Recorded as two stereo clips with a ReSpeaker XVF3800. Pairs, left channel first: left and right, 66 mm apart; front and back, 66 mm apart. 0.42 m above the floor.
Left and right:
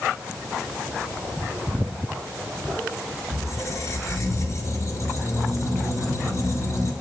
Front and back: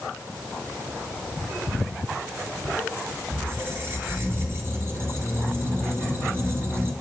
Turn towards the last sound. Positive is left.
turn(degrees=130)